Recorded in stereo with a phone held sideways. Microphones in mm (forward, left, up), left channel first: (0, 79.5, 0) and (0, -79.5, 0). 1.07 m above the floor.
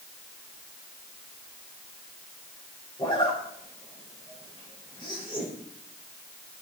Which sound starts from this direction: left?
A zipper, at 3.0 s.